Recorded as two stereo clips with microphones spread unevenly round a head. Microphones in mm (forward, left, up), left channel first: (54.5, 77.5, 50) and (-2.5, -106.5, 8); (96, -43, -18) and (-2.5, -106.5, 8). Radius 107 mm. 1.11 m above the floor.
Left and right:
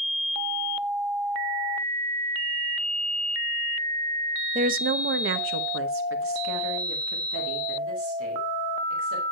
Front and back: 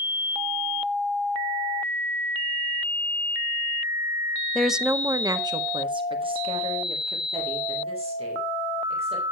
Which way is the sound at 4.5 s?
50° right.